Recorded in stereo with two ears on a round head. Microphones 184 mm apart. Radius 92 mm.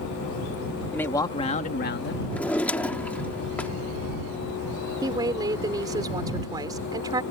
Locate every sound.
0.9 s a man speaking: 10° left (ahead or behind); by 2.2 s 60° left (ahead or behind)
2.3 s a drawer: 5° left (ahead or behind)
5.0 s a woman speaking: 20° right (ahead or behind)